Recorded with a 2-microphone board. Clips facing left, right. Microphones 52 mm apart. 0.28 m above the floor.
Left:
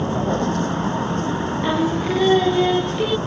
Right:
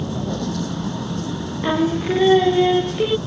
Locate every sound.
0.0 s a vehicle: 40° left (ahead or behind)
1.6 s singing: 10° right (ahead or behind)